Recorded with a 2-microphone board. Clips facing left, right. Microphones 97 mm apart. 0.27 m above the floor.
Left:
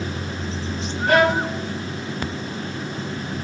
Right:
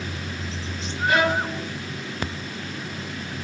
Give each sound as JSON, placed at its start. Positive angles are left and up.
{"t": 1.1, "sound": "a violin", "side_deg": 50, "distance_m": 0.8}